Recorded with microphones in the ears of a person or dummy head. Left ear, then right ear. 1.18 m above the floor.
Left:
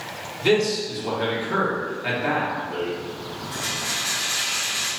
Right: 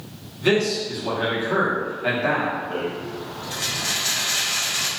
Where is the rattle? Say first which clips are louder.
Even; 40° right (ahead or behind), 0.8 m.